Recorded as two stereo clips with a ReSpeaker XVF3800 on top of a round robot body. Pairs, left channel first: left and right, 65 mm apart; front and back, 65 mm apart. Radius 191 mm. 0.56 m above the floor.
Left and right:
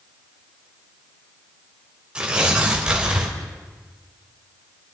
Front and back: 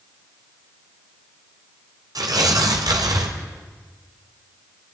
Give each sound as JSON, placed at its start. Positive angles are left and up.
{"t": 2.1, "sound": "tearing paper", "azimuth_deg": -165, "distance_m": 2.5}